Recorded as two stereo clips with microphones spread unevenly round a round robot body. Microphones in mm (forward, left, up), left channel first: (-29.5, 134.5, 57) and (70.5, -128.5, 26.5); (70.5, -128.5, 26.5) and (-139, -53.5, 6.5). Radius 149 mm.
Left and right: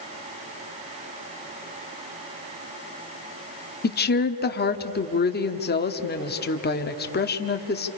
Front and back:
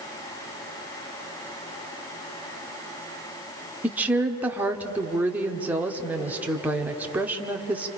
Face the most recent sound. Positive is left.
turn(degrees=95)